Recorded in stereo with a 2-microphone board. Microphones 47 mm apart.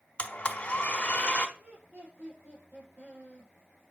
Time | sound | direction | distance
0.2 | a blender | 25° left (ahead or behind) | 1.0 m
1.6 | laughter | 50° right (ahead or behind) | 5.5 m